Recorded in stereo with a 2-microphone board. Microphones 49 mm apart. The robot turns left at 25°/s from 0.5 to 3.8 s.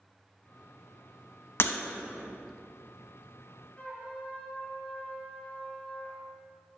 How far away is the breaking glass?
About 0.6 m.